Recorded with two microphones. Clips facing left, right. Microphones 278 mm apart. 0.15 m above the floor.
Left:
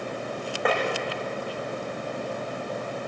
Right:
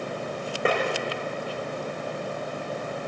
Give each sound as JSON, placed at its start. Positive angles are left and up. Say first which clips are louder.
{"t": 0.7, "sound": "tapping", "louder": "right 1 dB", "side_deg": -30, "distance_m": 9.5}